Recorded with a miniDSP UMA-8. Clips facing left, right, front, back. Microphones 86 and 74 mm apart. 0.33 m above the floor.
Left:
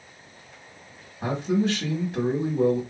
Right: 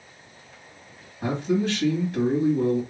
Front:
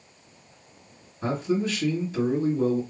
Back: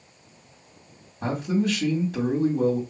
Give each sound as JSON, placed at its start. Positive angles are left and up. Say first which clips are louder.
{"t": 1.2, "sound": "a man speaking", "louder": "even, back 1 dB", "azimuth_deg": 170, "distance_m": 2.5}